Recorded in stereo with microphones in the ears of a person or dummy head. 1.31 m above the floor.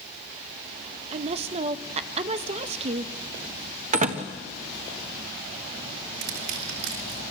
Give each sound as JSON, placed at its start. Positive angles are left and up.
{"t": 1.1, "sound": "a woman speaking", "side_deg": -35, "distance_m": 1.1}
{"t": 3.9, "sound": "a door slam", "side_deg": -45, "distance_m": 1.4}
{"t": 6.2, "sound": "crushing", "side_deg": -75, "distance_m": 4.5}